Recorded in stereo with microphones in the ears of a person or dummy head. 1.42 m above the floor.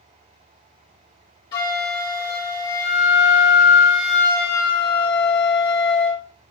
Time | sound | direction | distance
1.5 | a flute | 20° left (ahead or behind) | 1.0 m